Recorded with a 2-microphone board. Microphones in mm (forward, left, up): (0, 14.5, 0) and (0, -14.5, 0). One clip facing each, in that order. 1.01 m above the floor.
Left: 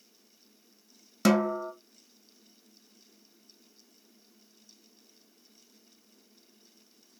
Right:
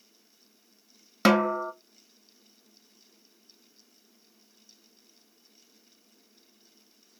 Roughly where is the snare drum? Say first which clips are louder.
Right 3 dB; right.